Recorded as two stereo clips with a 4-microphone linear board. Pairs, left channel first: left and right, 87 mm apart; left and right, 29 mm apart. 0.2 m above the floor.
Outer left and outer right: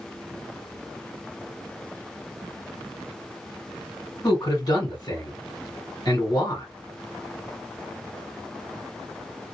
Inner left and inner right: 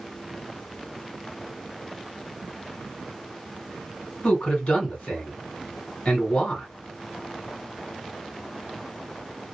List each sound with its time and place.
4.2 s a man speaking: 50° left (ahead or behind), 1.7 m